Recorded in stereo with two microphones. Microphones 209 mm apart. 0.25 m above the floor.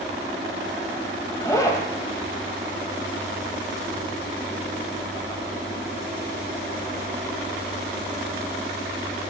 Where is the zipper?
15° left (ahead or behind), 1.0 m.